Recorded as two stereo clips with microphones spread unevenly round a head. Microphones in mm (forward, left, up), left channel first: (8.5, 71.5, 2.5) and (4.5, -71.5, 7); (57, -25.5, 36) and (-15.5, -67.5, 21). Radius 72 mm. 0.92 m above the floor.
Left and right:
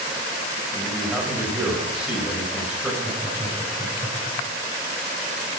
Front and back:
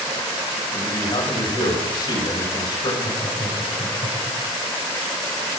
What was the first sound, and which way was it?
A man speaking, 5° right.